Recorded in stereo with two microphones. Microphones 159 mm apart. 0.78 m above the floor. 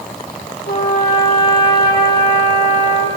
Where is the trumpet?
85° left, 8 m.